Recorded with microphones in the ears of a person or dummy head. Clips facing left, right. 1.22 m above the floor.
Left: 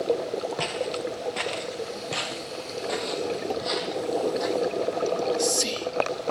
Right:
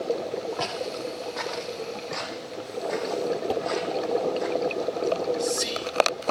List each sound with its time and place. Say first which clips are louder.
0.6 s footsteps: left 2 dB; 20° left (ahead or behind), 1.4 m; by 4.5 s 50° left (ahead or behind), 3 m
3.5 s dishes clattering: right 2 dB; 5° right (ahead or behind), 0.9 m
5.0 s whispering: right 2 dB; 85° left, 1.6 m